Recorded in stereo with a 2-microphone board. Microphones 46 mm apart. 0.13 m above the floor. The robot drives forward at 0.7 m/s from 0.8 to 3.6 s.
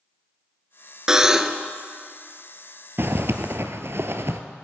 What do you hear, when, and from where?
1.1 s a buzzer: 15° right (ahead or behind), 0.6 m; by 1.7 s 10° right (ahead or behind), 0.9 m
3.0 s a zipper: 60° right (ahead or behind), 0.9 m; by 4.4 s 65° right (ahead or behind), 0.8 m